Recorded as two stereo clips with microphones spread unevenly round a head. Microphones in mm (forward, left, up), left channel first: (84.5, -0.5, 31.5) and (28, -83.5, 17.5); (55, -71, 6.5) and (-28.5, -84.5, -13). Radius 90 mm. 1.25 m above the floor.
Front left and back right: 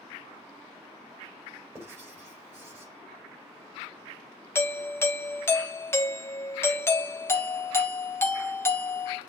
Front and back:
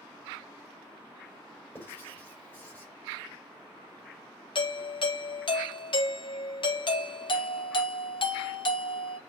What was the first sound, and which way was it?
Writing, 60° right.